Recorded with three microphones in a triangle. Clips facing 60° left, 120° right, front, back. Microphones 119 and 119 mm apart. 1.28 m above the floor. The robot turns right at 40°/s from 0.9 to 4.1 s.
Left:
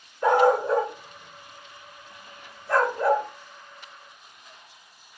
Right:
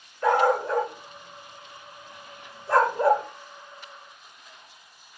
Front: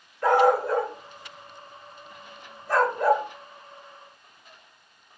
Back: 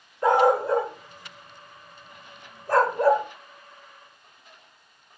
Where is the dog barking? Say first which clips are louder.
Left 2 dB, even; 125° left, 1.2 m; by 3.3 s 140° right, 1.2 m.